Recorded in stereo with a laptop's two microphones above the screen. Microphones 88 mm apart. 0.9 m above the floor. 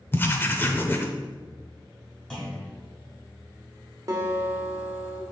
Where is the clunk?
10° left (ahead or behind), 1.9 m.